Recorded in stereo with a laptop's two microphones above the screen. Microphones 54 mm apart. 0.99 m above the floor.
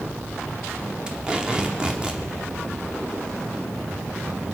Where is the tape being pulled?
15° right (ahead or behind), 0.9 m.